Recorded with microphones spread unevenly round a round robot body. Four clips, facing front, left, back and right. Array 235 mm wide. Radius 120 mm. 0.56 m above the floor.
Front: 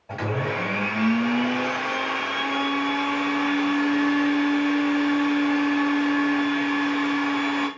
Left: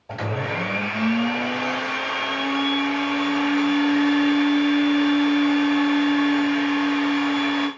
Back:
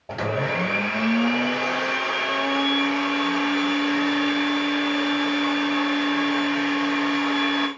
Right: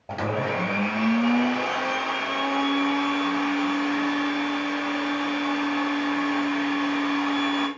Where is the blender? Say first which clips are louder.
Right 1 dB, back 2 dB; 120° right, 2 m.